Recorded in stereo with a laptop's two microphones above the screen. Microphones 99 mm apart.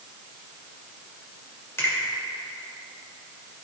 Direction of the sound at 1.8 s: 30° left (ahead or behind).